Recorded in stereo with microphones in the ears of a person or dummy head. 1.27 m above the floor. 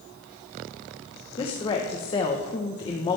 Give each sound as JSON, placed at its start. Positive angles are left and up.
{"t": 1.4, "sound": "a woman speaking", "side_deg": 25, "distance_m": 1.1}